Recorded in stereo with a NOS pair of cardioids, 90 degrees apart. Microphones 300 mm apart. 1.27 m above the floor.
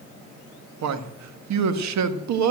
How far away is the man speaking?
About 1.8 m.